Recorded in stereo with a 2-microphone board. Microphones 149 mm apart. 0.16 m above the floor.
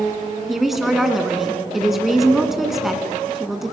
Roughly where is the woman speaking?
Centre.